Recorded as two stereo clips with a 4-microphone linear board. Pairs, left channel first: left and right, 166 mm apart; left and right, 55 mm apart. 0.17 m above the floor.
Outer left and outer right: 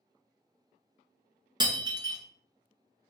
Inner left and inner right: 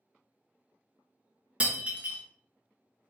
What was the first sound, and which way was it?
Breaking glass, 25° right (ahead or behind).